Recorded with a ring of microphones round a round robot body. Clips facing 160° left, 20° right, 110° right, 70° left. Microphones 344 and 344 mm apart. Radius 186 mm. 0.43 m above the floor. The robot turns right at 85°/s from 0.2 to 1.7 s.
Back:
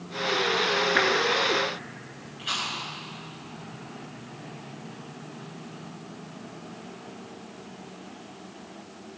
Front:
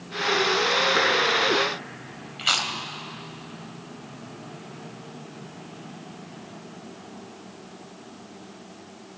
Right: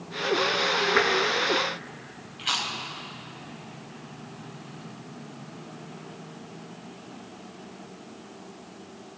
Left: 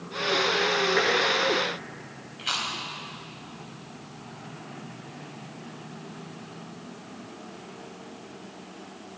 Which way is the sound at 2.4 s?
30° right.